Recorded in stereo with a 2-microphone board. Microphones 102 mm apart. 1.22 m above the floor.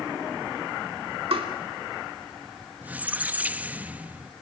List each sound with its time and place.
1.3 s tapping: 70° right (ahead or behind), 2.5 m
2.8 s a squeak: 15° right (ahead or behind), 0.6 m